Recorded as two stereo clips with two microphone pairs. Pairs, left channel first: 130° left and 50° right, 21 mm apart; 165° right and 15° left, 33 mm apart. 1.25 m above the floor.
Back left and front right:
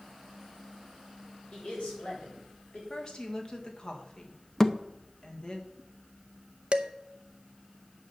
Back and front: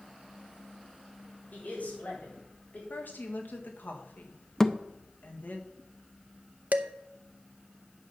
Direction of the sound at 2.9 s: Straight behind.